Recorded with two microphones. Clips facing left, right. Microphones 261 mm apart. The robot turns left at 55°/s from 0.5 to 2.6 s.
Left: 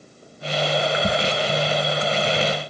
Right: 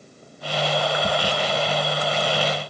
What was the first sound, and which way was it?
Only background noise.